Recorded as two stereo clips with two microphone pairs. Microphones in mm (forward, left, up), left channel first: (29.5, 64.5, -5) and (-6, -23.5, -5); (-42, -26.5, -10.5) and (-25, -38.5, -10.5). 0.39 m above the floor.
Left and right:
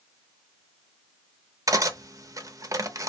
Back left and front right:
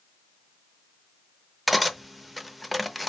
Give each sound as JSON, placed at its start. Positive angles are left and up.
{"t": 1.7, "sound": "cutlery clinking", "azimuth_deg": -120, "distance_m": 0.6}